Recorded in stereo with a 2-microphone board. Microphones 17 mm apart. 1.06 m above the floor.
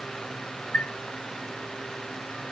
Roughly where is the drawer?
No drawer in this recording.